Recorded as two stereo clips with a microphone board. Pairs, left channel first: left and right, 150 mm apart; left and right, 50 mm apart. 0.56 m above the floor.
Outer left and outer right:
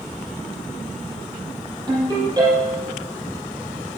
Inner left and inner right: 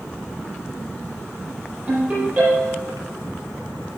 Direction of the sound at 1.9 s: 30° right (ahead or behind).